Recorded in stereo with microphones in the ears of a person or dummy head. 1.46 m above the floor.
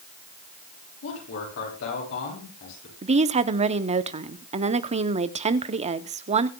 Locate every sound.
1.0 s a man speaking: 70° left (ahead or behind), 8.5 m
3.0 s a woman speaking: 30° right (ahead or behind), 0.7 m